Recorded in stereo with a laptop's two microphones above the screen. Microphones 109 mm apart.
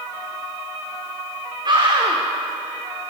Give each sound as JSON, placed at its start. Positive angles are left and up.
{"t": 1.6, "sound": "a scream", "side_deg": -45, "distance_m": 3.5}